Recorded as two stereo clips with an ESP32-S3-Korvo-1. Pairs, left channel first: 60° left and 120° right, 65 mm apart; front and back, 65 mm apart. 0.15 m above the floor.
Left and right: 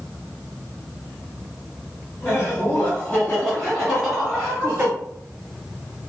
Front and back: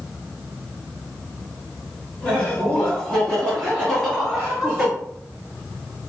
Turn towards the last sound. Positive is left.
turn(degrees=-100)